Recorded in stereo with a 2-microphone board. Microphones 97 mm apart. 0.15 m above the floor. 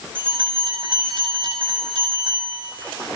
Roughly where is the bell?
Right.